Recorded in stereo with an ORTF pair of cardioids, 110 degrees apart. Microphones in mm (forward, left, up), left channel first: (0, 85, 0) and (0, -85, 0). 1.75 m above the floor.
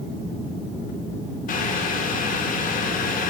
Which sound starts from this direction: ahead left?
Boiling, at 1.5 s.